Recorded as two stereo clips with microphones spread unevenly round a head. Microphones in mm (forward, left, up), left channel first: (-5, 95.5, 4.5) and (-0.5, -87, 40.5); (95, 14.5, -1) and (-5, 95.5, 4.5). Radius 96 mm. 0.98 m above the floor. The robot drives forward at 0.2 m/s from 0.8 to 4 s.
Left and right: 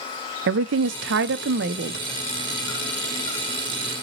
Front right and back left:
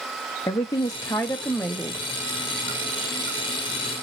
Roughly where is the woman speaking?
Right.